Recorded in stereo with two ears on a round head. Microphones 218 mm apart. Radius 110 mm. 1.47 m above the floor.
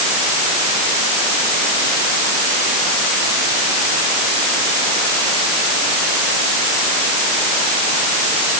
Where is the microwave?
I don't hear a microwave.